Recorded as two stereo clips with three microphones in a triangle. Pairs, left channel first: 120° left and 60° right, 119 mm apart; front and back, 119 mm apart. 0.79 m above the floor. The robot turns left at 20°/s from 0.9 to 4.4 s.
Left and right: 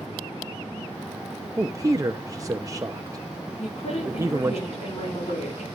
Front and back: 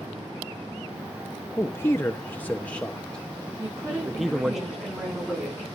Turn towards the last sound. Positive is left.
turn(degrees=105)